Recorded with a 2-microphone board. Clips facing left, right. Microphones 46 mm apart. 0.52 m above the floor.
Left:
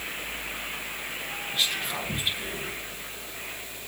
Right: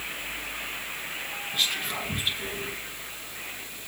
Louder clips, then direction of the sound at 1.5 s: Even; centre (ahead or behind).